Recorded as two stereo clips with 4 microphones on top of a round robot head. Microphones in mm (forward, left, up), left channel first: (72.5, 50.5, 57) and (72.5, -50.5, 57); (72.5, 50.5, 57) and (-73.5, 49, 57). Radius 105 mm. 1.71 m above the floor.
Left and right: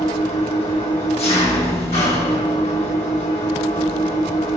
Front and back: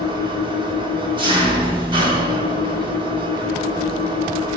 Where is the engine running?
125° left, 1.3 m.